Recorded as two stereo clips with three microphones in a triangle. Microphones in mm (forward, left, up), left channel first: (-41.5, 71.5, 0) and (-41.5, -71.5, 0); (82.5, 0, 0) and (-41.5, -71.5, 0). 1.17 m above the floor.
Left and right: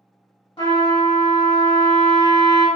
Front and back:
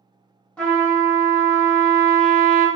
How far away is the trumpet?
About 1.1 m.